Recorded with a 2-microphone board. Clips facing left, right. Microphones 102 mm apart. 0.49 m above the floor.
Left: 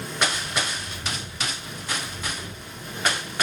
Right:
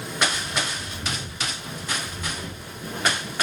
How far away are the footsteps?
About 4.5 m.